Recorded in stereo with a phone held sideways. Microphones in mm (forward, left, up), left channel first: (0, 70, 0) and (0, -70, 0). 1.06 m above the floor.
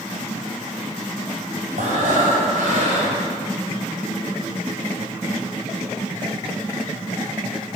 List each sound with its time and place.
1.8 s breathing: 65° right (ahead or behind), 5 m